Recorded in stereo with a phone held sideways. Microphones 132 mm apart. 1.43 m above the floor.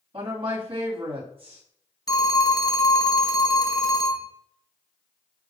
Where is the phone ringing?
30° left (ahead or behind), 1.0 m.